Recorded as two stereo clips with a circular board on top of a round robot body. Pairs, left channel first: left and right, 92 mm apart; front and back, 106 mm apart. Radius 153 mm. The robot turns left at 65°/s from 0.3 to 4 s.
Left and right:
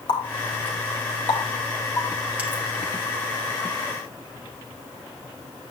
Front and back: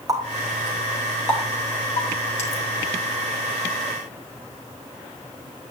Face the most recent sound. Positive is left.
turn(degrees=-120)